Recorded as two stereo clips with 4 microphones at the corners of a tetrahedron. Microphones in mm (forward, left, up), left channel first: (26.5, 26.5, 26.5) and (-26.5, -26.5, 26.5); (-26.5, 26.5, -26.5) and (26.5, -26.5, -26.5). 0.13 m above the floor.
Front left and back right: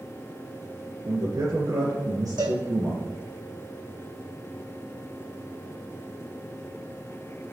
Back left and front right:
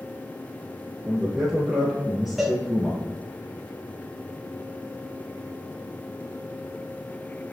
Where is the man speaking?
130° right, 2.5 m.